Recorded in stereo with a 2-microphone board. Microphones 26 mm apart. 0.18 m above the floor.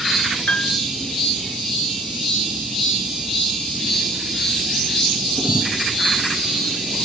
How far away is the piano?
About 1.3 m.